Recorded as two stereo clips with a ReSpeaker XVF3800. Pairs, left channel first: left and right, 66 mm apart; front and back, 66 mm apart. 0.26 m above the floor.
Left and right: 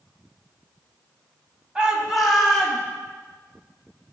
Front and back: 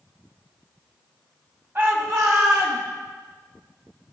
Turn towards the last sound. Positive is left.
turn(degrees=165)